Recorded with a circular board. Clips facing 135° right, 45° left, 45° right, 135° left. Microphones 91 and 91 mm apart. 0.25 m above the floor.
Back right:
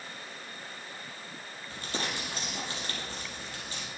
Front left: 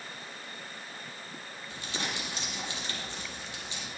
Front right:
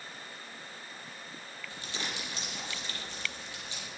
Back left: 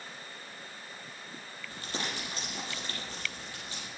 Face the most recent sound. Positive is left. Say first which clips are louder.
# back right 2 dB, back left 3 dB
turn(degrees=180)